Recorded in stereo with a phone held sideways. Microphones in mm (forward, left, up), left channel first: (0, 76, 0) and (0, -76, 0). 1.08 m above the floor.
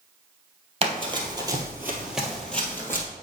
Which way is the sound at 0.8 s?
40° right (ahead or behind).